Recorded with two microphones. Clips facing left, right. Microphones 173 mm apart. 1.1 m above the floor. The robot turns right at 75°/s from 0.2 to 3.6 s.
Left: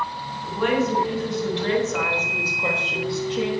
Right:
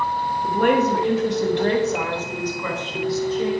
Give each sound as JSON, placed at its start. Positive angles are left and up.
{"t": 0.4, "sound": "a woman speaking", "azimuth_deg": -140, "distance_m": 1.4}